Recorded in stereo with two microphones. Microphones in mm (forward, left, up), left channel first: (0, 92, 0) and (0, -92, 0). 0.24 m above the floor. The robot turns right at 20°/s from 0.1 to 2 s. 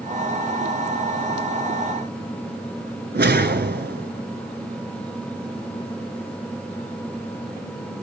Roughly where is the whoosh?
Right.